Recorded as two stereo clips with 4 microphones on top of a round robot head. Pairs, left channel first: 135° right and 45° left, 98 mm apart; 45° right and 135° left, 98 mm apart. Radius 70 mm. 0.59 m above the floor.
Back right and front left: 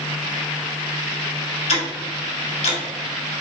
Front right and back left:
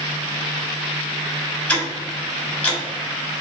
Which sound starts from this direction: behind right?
Ticking, at 1.7 s.